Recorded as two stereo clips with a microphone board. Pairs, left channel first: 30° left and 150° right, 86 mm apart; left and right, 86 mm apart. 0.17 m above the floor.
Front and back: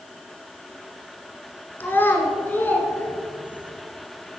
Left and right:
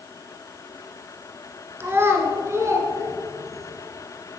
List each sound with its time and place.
1.8 s a child speaking: 30° right, 1.9 m; by 3.7 s 40° right, 3 m